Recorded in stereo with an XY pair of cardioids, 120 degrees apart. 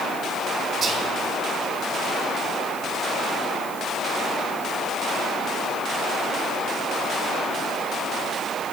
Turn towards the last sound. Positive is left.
turn(degrees=-45)